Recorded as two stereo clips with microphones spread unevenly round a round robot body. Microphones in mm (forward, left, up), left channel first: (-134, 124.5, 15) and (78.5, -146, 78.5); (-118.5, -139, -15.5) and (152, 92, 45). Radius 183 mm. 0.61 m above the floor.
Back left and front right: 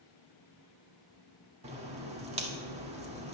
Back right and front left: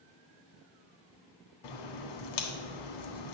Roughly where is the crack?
Behind right.